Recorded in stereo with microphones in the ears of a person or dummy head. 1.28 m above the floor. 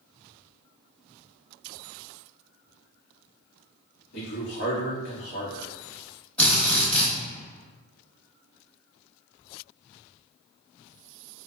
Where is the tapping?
No tapping in this recording.